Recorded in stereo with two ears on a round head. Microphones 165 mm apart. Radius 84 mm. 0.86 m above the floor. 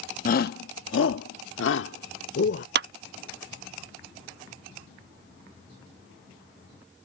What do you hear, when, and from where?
0.2 s a shout: 45° left (ahead or behind); by 2.6 s 60° left (ahead or behind)
2.8 s a clap: 60° right (ahead or behind)